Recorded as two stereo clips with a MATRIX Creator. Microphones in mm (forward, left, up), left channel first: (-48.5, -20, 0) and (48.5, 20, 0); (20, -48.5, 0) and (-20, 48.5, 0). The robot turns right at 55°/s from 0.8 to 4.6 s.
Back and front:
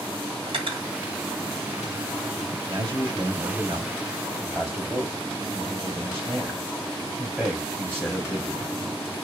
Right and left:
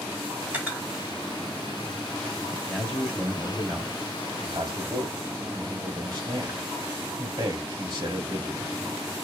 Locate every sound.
0.5 s cutlery clinking: 40° left, 1.2 m; by 0.9 s 45° left, 1.2 m
2.7 s a man speaking: 10° right, 1.4 m; by 8.7 s 95° left, 1.4 m